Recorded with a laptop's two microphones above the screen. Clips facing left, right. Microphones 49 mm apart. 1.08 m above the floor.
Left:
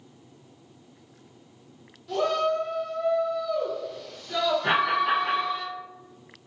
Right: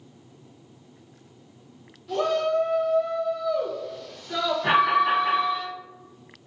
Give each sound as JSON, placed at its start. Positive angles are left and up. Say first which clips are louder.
{"t": 2.1, "sound": "a shout", "louder": "right 1 dB", "side_deg": -5, "distance_m": 0.8}
{"t": 4.6, "sound": "an alarm", "louder": "right 6 dB", "side_deg": -20, "distance_m": 1.3}